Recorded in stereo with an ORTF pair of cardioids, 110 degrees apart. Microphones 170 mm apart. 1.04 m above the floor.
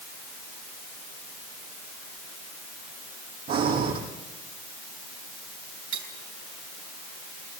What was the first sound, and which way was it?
Breathing, 65° right.